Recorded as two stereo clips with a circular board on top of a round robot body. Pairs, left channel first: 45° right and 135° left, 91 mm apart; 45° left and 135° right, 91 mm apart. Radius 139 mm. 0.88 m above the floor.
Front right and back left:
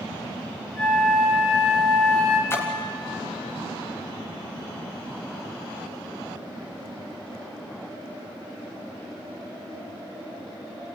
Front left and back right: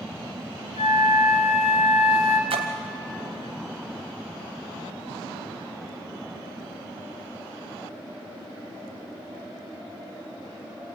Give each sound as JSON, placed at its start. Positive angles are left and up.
{"t": 0.8, "sound": "a flute", "azimuth_deg": 35, "distance_m": 2.0}
{"t": 2.5, "sound": "a splash", "azimuth_deg": -110, "distance_m": 1.0}